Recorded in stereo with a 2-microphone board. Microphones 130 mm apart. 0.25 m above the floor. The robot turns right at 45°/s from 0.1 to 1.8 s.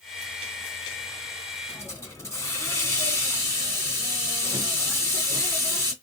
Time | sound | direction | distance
1.7 | a hiss | 20° left (ahead or behind) | 2.0 m